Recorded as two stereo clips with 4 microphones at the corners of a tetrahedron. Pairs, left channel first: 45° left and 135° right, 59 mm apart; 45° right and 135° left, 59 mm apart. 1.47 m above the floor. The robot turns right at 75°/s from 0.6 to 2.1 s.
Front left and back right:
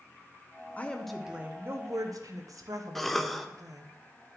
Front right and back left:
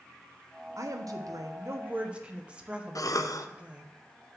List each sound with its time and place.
0.8 s a woman speaking: 110° left, 0.8 m; by 3.9 s 150° right, 0.8 m
3.0 s a cough: 45° right, 0.6 m